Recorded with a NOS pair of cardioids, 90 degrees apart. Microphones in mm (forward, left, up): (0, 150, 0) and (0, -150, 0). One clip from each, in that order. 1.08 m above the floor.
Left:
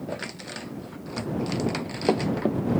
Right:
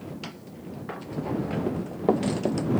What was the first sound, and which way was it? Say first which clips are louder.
Running footsteps: right 1 dB; 5° right.